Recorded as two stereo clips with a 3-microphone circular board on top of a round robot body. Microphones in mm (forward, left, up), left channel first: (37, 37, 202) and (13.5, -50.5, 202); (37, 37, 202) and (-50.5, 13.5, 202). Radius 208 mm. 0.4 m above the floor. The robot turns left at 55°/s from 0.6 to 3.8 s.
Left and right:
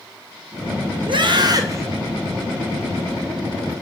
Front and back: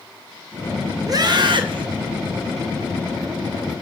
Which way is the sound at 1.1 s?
120° right.